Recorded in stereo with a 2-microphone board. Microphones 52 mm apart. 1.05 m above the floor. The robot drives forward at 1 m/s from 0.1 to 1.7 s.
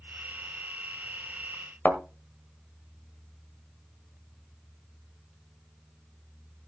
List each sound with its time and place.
1.9 s a thud: 35° left (ahead or behind), 1.5 m